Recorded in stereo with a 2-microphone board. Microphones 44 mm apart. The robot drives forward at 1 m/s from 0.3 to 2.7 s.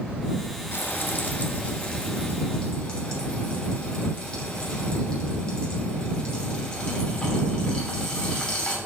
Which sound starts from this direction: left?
Frying, at 0.7 s.